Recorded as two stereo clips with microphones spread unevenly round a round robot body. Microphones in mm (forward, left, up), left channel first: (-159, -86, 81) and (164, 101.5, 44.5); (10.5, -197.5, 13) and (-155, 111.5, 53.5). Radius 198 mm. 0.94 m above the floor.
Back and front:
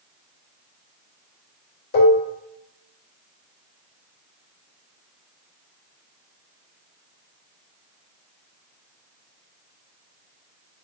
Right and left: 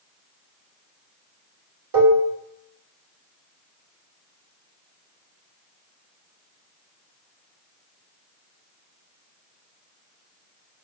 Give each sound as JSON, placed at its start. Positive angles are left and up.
{"t": 1.9, "sound": "dishes clattering", "azimuth_deg": 145, "distance_m": 2.5}